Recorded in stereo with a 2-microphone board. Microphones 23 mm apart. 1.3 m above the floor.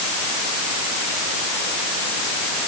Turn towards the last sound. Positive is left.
No sound to turn to.